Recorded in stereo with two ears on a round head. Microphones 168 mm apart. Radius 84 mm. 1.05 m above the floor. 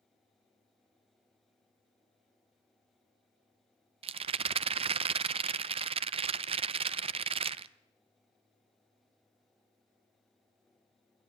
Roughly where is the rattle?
Right.